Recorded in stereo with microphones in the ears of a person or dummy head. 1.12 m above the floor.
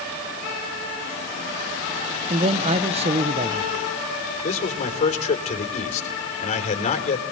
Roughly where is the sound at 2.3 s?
Right.